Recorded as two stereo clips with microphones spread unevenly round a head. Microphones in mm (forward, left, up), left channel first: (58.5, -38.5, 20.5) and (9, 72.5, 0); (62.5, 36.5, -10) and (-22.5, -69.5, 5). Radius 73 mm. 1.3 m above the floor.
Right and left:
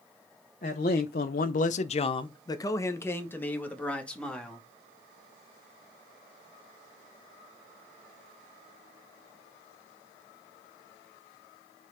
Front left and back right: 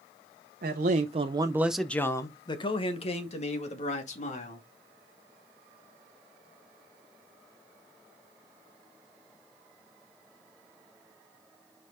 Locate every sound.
0.6 s a man speaking: 105° right, 1.0 m; by 4.7 s 20° left, 2.5 m